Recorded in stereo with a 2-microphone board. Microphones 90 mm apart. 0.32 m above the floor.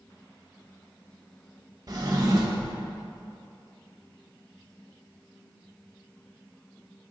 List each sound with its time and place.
1.9 s a drawer: 45° right (ahead or behind), 0.5 m